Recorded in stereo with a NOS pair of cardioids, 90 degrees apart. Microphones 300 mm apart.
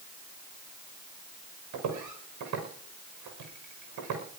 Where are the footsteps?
65° right, 6 m.